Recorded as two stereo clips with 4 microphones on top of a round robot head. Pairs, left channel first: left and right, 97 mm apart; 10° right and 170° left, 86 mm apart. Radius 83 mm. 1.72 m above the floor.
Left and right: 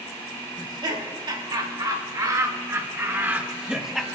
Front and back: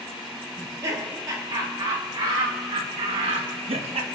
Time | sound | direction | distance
0.6 | laughter | 130° right | 3 m